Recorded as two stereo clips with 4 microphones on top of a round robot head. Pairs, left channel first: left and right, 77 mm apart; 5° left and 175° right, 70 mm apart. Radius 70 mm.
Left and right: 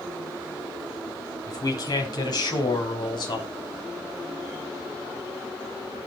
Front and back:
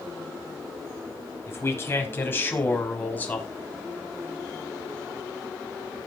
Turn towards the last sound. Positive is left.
turn(degrees=75)